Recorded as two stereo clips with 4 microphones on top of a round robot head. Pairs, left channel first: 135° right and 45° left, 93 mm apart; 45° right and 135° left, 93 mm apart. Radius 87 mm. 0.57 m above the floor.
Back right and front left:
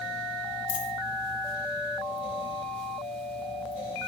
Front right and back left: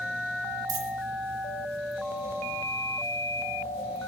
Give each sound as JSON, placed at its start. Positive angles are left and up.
{"t": 0.7, "sound": "a dropped coin", "azimuth_deg": -175, "distance_m": 1.5}